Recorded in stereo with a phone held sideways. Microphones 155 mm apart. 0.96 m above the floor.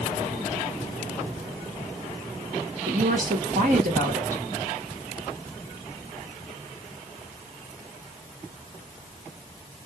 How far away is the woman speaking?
About 1.7 m.